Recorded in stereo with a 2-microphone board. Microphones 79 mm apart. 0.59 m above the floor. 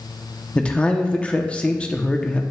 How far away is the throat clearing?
No throat clearing in this recording.